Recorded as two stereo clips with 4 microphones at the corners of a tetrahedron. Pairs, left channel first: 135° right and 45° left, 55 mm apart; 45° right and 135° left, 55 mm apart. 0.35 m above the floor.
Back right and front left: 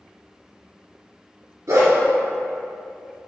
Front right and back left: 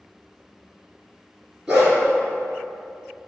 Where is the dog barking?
55° left, 1.8 m.